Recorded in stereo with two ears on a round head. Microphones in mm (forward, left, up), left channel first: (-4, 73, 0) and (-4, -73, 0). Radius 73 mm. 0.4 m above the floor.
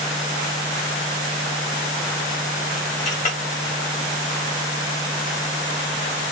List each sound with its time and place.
3.0 s a clink: 50° left (ahead or behind), 1.4 m